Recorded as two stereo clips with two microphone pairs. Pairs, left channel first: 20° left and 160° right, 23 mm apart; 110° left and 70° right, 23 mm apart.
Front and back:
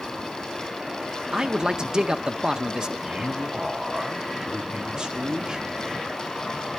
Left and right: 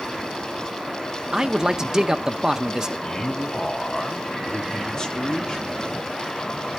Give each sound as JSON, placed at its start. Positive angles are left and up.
{"t": 1.3, "sound": "a man speaking", "azimuth_deg": -135, "distance_m": 0.7}
{"t": 3.0, "sound": "a man speaking", "azimuth_deg": 160, "distance_m": 1.4}